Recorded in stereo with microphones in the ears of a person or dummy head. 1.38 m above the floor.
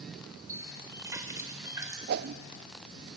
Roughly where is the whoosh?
Right.